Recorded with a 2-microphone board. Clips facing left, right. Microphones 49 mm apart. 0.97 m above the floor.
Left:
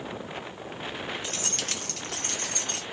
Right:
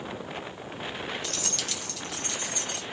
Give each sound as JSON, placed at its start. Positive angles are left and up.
{"t": 1.2, "sound": "keys jangling", "side_deg": 20, "distance_m": 0.5}